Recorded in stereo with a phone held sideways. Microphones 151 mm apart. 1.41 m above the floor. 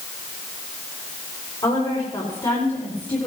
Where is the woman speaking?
35° left (ahead or behind), 5 m; by 3.3 s 25° left (ahead or behind), 3.5 m.